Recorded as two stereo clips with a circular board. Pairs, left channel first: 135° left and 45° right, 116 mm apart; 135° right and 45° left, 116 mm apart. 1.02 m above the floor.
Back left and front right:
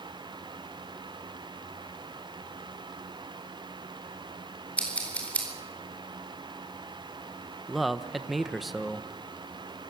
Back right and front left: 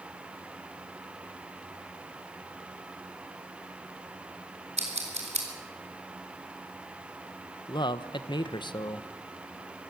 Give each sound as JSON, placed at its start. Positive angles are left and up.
{"t": 4.8, "sound": "scissors", "azimuth_deg": 55, "distance_m": 4.0}
{"t": 7.7, "sound": "a man speaking", "azimuth_deg": -135, "distance_m": 0.8}